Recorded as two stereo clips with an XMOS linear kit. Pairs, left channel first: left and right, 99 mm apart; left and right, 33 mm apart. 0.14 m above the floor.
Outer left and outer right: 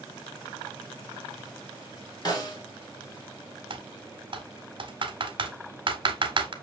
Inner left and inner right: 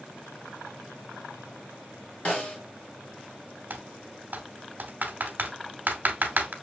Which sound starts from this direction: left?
A snare drum, at 2.2 s.